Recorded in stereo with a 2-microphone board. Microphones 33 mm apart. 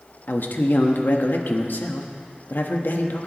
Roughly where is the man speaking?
Left.